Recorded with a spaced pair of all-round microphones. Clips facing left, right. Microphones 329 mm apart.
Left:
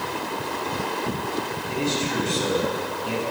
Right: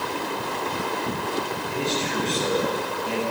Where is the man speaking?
15° left (ahead or behind), 8.5 m.